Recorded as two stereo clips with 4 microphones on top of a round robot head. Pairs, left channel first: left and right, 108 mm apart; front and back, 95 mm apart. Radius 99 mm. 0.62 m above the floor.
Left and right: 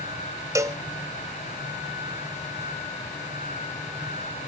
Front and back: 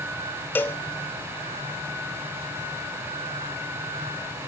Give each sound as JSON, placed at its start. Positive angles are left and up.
{"t": 0.6, "sound": "a cowbell", "azimuth_deg": -55, "distance_m": 1.4}